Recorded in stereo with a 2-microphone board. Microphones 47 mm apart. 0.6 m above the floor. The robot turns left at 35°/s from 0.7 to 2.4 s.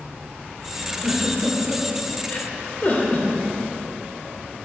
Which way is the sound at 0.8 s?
10° right (ahead or behind).